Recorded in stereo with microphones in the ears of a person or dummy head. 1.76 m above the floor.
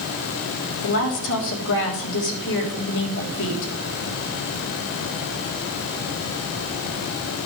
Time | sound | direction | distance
0.8 | a woman speaking | 65° left (ahead or behind) | 3 m